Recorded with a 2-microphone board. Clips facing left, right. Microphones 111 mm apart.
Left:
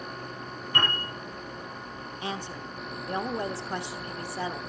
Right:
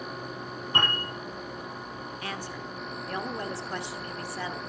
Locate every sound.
0.7 s a piano: 30° right (ahead or behind), 9 m
2.2 s a woman speaking: 20° left (ahead or behind), 1.0 m